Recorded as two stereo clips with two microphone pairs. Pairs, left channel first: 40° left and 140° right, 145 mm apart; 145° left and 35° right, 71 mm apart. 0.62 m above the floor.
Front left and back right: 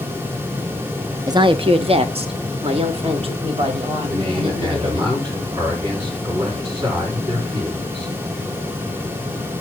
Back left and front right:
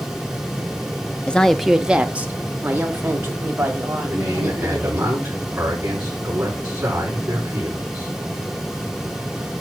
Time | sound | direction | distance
1.3 | a woman speaking | 165° right | 0.6 m
4.1 | a man speaking | 95° right | 7 m